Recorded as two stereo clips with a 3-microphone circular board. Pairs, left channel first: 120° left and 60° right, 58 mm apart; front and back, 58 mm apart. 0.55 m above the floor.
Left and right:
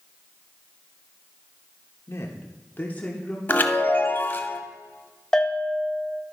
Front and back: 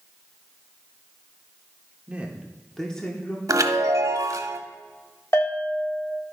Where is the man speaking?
120° left, 1.3 m; by 3.4 s 45° left, 1.2 m.